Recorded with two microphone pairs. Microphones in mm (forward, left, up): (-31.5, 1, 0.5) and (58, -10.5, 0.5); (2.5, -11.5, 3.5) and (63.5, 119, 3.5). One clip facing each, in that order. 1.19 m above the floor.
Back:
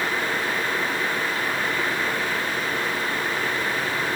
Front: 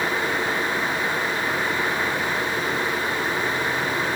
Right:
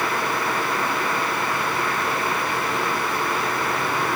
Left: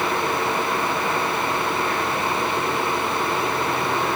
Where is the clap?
I don't hear a clap.